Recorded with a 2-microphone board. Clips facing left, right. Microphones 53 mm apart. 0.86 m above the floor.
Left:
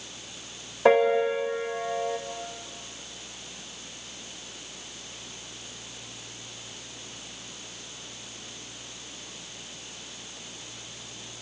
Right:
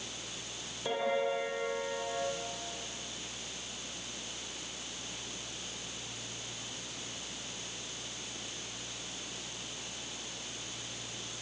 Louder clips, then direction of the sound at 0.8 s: Left 12 dB; 80° left.